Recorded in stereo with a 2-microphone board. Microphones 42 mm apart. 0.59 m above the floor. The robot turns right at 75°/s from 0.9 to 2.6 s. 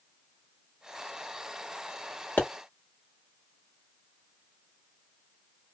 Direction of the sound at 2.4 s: 45° left (ahead or behind).